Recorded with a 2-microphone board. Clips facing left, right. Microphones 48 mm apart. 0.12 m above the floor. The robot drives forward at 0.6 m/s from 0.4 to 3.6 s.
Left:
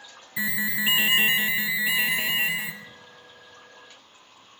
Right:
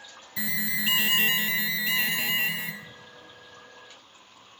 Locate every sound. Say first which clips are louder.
0.4 s an alarm: left 4 dB; 20° left (ahead or behind), 0.8 m; by 2.7 s 10° left (ahead or behind), 1.5 m
2.8 s a drawer: left 1 dB; 10° right (ahead or behind), 3 m